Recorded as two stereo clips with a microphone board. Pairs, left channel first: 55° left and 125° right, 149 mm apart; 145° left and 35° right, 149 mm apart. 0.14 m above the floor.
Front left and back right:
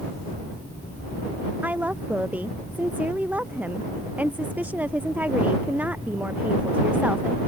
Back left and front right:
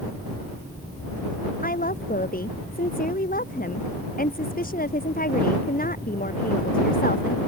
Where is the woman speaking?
155° left.